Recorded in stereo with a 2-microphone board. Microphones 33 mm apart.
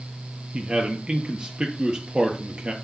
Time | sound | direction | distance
0.5 | a man speaking | 35° right (ahead or behind) | 1.8 m